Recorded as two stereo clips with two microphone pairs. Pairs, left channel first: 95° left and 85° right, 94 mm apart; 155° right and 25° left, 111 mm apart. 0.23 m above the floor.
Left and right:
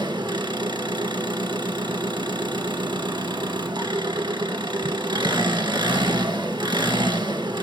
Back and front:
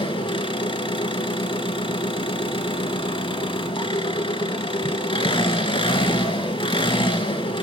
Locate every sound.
0.0 s an engine running: 125° right, 1.0 m